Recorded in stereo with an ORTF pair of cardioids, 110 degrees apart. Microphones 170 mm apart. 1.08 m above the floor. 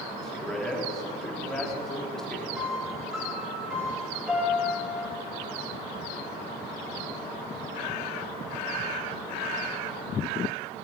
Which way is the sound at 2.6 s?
5° right.